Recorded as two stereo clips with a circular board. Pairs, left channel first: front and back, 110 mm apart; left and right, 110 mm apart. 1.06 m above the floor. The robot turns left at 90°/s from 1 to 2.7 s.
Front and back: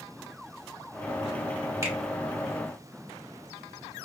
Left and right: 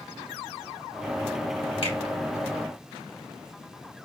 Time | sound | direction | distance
1.8 | a finger snap | 115° left | 2.5 m